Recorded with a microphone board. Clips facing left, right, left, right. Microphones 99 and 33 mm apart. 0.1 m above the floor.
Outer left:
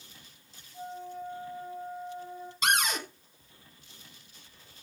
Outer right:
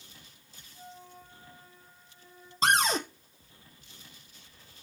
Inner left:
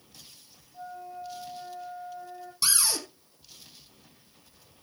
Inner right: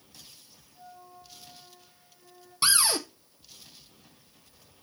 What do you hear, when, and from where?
0.7 s a flute: 80° left, 7.5 m
2.6 s a cupboard door: 35° right (ahead or behind), 1.5 m